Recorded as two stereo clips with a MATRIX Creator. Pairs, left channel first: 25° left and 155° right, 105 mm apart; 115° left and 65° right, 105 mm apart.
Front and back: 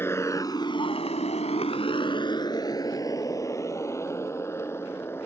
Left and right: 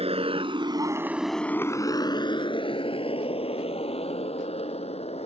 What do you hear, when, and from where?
0.0 s a motorcycle: 45° right; by 5.3 s 90° left